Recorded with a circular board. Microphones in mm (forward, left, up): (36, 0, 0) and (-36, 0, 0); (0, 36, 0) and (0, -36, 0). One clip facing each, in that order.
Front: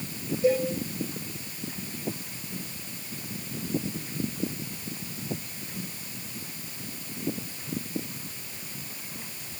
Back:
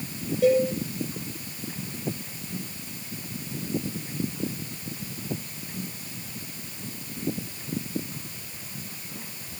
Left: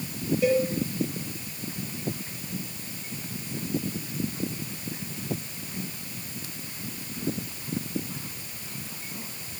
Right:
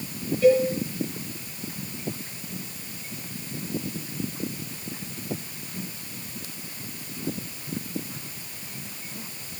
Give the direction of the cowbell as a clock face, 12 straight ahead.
6 o'clock.